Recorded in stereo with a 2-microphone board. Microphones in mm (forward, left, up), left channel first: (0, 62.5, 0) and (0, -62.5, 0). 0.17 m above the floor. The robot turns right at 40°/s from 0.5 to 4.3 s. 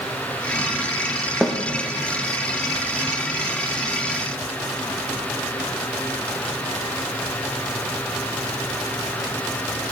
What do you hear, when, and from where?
1.4 s a snare drum: centre (ahead or behind), 3 m; by 1.6 s 5° left (ahead or behind), 3 m